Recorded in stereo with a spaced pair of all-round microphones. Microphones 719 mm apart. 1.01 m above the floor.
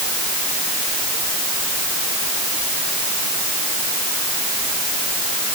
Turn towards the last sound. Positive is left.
No sound to turn to.